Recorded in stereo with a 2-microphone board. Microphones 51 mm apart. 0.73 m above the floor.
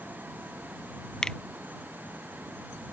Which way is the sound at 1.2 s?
15° left (ahead or behind).